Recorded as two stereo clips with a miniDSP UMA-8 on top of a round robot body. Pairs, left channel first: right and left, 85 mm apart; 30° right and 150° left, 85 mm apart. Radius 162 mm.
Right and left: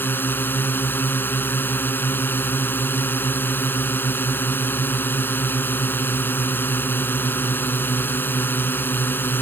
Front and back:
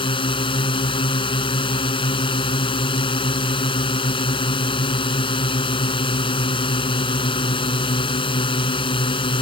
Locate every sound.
0.0 s a drone: 25° right